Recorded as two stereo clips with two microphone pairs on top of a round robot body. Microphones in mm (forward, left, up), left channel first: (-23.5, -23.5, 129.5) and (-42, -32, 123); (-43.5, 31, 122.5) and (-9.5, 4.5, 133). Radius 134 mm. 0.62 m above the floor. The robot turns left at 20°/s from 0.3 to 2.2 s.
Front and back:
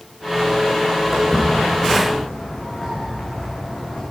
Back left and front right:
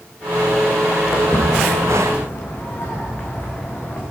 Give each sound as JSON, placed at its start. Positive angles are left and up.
{"t": 1.1, "sound": "footsteps", "azimuth_deg": 130, "distance_m": 3.5}